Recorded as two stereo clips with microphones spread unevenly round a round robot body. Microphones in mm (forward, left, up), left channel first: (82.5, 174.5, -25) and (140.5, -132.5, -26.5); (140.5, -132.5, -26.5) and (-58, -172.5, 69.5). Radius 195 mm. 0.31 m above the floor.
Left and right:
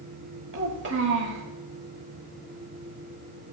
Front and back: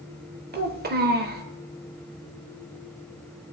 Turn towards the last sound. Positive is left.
turn(degrees=-115)